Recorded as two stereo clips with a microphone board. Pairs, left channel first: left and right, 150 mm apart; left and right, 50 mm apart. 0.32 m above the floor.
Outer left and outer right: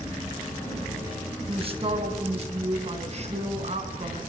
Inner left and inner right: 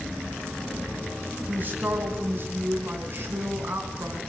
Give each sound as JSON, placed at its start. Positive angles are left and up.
{"t": 1.5, "sound": "a man speaking", "side_deg": -40, "distance_m": 3.5}